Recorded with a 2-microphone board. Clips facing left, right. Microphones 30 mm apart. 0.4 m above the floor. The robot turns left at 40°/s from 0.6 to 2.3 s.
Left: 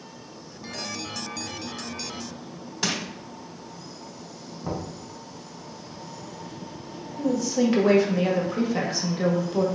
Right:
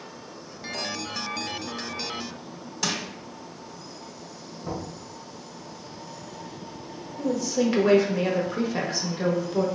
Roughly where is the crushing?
Centre.